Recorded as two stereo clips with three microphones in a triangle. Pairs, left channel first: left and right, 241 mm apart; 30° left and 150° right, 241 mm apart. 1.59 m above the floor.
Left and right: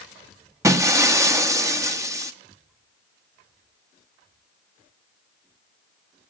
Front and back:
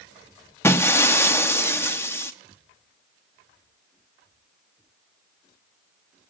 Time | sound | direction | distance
0.6 | breaking glass | 35° right | 1.0 m